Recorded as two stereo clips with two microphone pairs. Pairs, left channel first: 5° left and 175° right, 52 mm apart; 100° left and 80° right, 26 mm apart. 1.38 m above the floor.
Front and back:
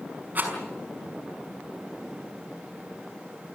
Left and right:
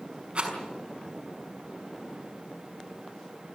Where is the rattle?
120° right, 5.5 m.